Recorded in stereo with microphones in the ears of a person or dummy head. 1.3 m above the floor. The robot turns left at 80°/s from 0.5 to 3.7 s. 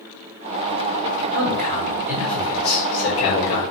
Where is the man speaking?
110° right, 4 m; by 3.6 s 70° left, 4 m.